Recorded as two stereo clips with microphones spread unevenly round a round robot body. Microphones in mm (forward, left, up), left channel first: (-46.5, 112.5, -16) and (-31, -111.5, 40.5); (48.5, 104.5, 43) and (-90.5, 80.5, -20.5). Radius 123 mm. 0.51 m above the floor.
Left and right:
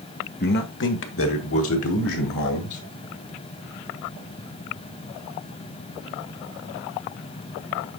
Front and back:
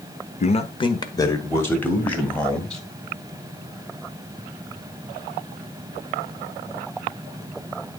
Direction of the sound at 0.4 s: 60° left.